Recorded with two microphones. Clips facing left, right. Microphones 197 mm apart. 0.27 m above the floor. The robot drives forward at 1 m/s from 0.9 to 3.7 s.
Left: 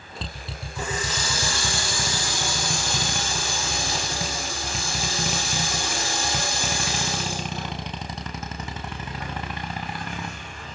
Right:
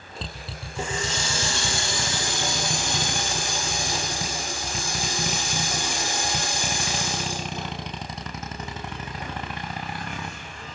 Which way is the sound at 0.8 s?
30° right (ahead or behind).